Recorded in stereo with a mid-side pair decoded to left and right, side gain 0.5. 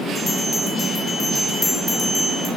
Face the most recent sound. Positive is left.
turn(degrees=25)